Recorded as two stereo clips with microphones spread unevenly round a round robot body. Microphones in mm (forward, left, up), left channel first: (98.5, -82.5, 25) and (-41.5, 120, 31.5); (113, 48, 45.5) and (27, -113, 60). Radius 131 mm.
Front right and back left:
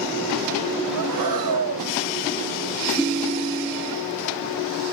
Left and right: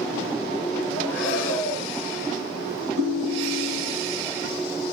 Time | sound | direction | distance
0.9 | breathing | 145° left | 5 m
3.0 | a ringtone | 140° right | 2.5 m